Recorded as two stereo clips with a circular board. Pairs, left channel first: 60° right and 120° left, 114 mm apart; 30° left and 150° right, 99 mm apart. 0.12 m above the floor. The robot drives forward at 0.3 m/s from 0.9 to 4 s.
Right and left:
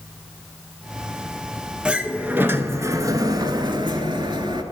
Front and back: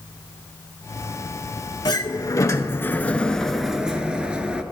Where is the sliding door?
40° left, 0.6 m; by 4.6 s 135° left, 0.6 m.